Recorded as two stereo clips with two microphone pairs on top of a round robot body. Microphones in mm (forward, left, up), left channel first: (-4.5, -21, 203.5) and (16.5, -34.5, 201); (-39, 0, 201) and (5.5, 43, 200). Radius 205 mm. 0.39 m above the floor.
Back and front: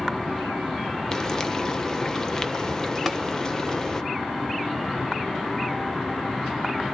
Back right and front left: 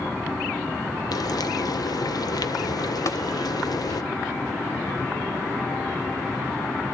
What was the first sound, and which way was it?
Frying, 140° right.